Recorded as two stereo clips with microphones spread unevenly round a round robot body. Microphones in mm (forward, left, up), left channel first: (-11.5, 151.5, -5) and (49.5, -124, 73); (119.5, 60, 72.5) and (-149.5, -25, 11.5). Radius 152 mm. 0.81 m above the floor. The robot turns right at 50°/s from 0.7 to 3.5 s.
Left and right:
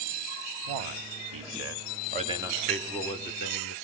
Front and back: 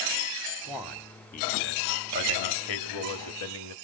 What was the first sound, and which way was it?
A man speaking, 80° right.